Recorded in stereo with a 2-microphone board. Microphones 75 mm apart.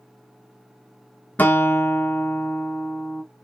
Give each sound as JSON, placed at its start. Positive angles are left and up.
{"t": 1.4, "sound": "a guitar", "side_deg": 25, "distance_m": 0.5}